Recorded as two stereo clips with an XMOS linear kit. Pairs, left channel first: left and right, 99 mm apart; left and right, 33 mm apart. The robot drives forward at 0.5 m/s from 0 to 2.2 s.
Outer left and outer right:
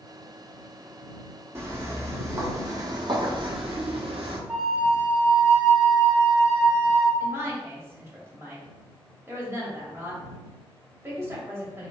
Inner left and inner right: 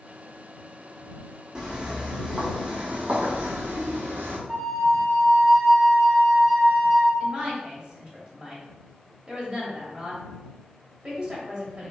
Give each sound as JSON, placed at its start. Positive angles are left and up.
{"t": 1.6, "sound": "footsteps", "side_deg": -25, "distance_m": 1.1}
{"t": 4.5, "sound": "a flute", "side_deg": 10, "distance_m": 1.2}
{"t": 7.2, "sound": "a woman speaking", "side_deg": -25, "distance_m": 1.3}